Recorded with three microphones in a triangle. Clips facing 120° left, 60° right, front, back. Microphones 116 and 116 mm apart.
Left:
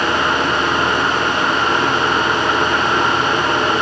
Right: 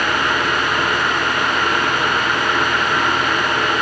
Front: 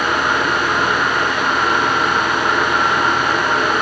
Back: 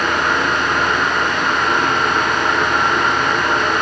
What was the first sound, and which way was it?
Only background noise.